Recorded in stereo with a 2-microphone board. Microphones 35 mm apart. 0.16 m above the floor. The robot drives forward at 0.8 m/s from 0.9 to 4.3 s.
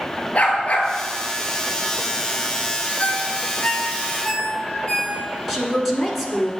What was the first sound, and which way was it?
A dog barking, 40° left (ahead or behind).